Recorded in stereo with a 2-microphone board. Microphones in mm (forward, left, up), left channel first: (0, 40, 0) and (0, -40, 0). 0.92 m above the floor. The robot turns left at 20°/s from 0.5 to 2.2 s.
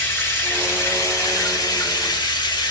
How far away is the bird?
No bird in this recording.